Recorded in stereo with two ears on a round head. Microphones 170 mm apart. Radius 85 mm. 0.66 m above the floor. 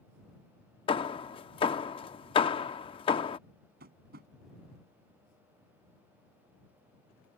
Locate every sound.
0.9 s hammering: 30° left (ahead or behind)
3.8 s tapping: 55° right (ahead or behind)